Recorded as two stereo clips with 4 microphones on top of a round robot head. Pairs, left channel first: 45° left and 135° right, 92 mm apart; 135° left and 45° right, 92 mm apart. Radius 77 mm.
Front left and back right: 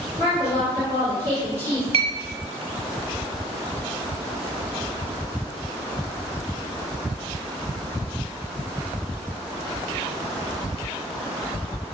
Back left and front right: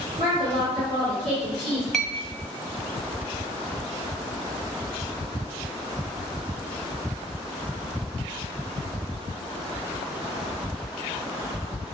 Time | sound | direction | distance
0.2 | a woman speaking | 15° right | 1.8 m
1.9 | a clink | 140° right | 0.8 m